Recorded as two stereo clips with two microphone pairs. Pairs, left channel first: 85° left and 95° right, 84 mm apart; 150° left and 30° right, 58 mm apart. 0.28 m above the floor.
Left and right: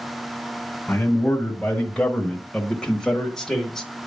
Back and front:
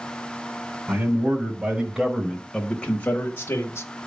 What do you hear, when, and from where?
0.9 s a man speaking: 10° left, 1.6 m; by 3.9 s 175° left, 1.5 m